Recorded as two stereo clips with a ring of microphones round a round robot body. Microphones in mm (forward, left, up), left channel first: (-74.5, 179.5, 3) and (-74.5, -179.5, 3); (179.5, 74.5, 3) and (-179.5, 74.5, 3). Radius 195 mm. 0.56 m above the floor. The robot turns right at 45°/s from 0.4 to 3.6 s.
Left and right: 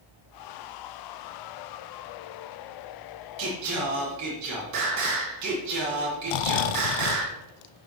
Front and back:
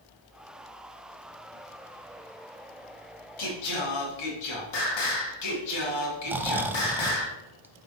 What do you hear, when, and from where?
3.4 s singing: 45° right, 2 m; by 7.3 s 35° right, 2 m
6.3 s snoring: 95° left, 0.6 m